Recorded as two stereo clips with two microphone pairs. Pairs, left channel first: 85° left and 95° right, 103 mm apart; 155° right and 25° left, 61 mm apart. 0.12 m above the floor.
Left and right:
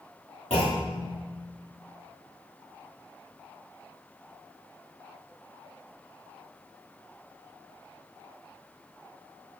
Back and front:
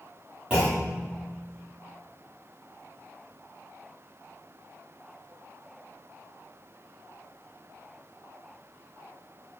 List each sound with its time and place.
0.5 s a clunk: 100° left, 6 m